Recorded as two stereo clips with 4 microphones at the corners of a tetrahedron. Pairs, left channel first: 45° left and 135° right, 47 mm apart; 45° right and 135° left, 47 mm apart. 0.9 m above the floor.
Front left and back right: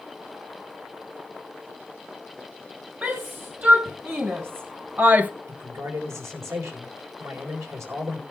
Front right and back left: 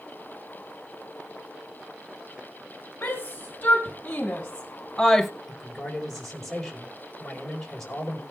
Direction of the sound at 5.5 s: 125° right.